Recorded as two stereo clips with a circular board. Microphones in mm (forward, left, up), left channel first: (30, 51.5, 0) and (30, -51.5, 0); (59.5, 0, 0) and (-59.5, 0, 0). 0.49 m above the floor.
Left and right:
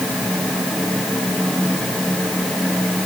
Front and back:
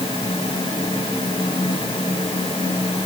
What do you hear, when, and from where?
Only background noise.